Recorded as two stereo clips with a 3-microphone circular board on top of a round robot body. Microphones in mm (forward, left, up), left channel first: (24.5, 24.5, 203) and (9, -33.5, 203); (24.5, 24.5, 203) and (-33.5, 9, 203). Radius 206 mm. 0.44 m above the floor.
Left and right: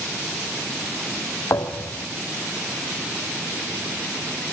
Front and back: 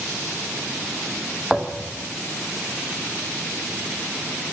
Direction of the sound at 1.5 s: 110° left.